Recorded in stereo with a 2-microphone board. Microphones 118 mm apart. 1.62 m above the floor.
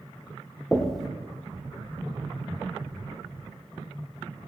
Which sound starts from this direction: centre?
Knocking, at 0.7 s.